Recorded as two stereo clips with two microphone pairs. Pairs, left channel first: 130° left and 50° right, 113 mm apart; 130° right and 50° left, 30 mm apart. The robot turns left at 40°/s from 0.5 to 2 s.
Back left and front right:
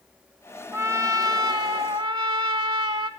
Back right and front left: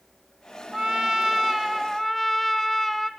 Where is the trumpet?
5° left, 1.1 m; by 3.1 s 45° right, 1.1 m.